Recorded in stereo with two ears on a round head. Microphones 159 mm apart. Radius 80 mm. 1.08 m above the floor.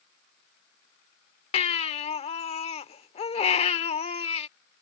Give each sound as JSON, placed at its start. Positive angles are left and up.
{"t": 1.5, "sound": "a baby crying", "side_deg": 35}